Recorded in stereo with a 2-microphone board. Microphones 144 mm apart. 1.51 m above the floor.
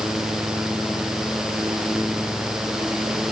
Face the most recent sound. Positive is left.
No sound to turn to.